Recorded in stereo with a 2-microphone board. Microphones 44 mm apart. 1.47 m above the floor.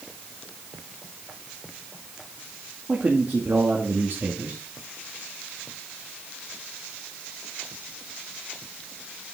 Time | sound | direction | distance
2.9 | a man speaking | 30° right (ahead or behind) | 2 m